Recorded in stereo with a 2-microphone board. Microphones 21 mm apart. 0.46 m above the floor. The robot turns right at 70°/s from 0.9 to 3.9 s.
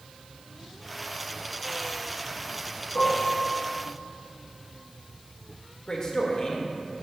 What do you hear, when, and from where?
3.0 s dishes clattering: 80° left, 2.5 m; by 3.3 s 65° left (ahead or behind), 2.5 m
5.9 s a man speaking: 35° left (ahead or behind), 1.3 m